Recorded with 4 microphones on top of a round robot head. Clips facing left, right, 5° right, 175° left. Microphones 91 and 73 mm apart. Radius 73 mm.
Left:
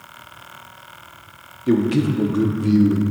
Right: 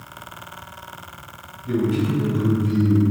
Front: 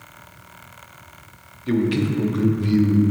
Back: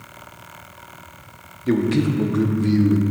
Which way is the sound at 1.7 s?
110° left.